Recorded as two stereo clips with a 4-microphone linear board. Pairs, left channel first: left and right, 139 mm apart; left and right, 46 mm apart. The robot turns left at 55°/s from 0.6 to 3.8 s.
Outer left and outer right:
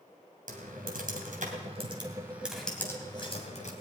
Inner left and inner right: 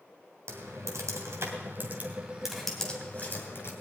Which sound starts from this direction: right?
Typing on a keyboard, at 0.5 s.